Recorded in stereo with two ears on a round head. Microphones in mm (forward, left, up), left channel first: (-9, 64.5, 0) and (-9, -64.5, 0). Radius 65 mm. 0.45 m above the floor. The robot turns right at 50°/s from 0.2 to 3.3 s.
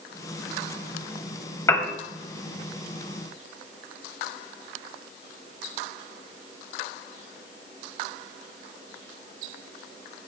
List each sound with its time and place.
1.7 s a piano: 20° left (ahead or behind), 1.4 m; by 1.9 s 10° left (ahead or behind), 1.4 m